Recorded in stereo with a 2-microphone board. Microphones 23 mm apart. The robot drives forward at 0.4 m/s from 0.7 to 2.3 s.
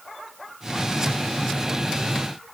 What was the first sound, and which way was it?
Only background noise.